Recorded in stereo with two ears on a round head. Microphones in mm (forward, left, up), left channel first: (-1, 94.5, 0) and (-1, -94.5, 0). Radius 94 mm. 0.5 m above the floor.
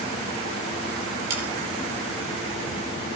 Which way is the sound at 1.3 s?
85° right.